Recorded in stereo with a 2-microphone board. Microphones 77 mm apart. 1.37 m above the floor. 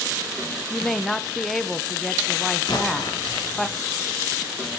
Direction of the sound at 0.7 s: 5° left (ahead or behind).